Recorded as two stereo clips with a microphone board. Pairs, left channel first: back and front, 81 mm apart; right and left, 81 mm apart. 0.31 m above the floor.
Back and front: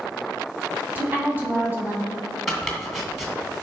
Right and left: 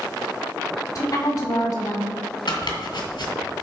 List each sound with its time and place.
0.9 s a woman speaking: 60° right, 2 m
2.5 s chopping: 90° right, 1.6 m